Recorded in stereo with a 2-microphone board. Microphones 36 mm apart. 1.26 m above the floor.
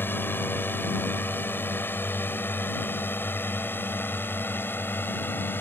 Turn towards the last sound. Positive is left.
turn(degrees=80)